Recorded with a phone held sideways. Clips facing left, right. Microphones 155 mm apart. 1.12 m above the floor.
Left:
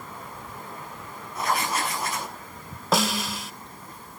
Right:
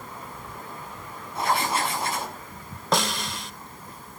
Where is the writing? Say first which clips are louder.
Right 2 dB; 30° right (ahead or behind), 6 m.